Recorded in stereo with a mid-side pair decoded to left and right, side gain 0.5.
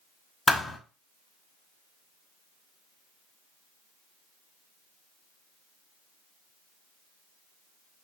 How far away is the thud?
About 1.1 m.